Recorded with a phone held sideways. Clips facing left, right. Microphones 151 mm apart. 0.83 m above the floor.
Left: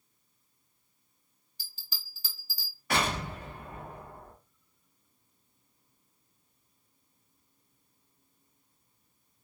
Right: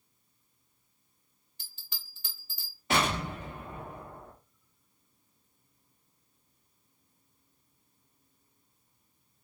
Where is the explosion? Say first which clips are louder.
Right 1 dB; 20° right (ahead or behind), 2 m.